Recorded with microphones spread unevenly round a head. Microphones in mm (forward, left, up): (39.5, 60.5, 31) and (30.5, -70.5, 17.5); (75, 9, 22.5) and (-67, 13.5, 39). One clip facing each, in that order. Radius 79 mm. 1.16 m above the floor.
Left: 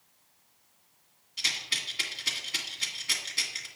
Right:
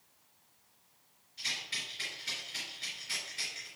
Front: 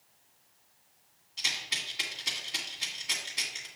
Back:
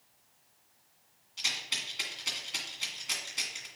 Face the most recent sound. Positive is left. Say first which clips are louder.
# left 5 dB, front 1 dB
turn(degrees=85)